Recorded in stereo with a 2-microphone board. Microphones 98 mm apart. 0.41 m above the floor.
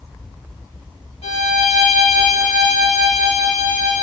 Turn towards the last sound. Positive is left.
turn(degrees=80)